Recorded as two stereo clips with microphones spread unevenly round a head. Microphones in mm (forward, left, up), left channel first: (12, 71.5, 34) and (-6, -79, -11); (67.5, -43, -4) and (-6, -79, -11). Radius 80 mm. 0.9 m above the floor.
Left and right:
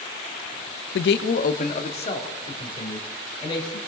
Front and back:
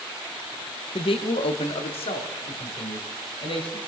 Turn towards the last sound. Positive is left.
turn(degrees=20)